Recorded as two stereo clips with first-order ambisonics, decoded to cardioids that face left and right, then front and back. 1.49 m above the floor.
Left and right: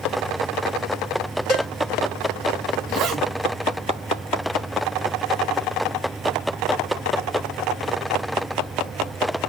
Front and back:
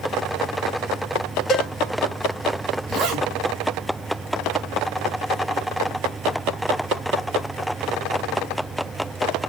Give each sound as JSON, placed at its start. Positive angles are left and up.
{"t": 1.5, "sound": "a cowbell", "azimuth_deg": 45, "distance_m": 1.8}
{"t": 2.9, "sound": "a zipper", "azimuth_deg": -145, "distance_m": 1.1}